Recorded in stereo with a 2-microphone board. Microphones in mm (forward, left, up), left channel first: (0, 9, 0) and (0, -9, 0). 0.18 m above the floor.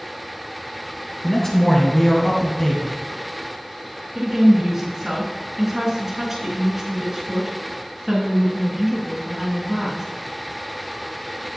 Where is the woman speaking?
15° right (ahead or behind), 2.5 m.